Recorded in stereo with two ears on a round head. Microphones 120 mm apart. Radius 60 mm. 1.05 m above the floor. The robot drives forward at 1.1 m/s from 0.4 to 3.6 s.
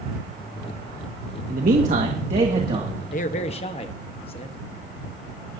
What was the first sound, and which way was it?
A man speaking, 70° right (ahead or behind).